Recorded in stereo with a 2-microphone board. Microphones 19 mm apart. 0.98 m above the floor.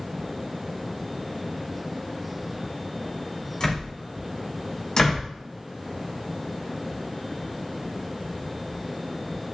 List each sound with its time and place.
3.6 s a door slam: 30° left (ahead or behind), 5.5 m
5.0 s a door slam: 45° left (ahead or behind), 3.5 m